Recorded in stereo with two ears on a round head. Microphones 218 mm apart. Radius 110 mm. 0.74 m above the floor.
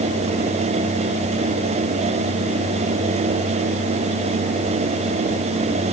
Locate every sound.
Only background noise.